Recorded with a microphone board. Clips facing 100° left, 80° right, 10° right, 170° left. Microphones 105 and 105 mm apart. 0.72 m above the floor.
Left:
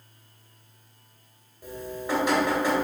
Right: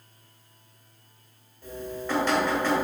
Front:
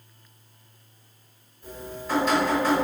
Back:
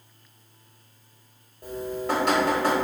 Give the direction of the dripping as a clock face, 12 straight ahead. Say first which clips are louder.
Even, back 6 dB; 6 o'clock.